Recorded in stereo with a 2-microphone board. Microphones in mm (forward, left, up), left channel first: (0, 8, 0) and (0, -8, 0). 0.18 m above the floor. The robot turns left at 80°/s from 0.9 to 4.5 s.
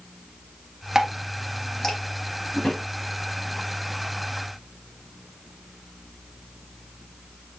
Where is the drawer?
85° left, 4.5 m; by 2.9 s 60° left (ahead or behind), 4.5 m.